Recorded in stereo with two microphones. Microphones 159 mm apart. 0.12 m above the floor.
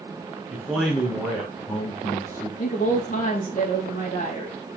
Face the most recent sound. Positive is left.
turn(degrees=55)  # may be behind; listen again after turning